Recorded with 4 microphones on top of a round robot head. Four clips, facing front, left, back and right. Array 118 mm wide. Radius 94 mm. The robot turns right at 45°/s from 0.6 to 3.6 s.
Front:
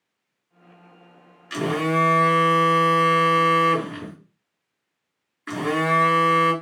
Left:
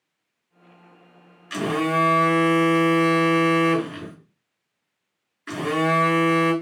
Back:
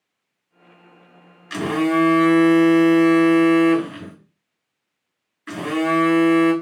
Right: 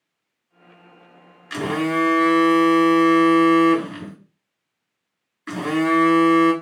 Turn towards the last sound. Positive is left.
turn(degrees=-45)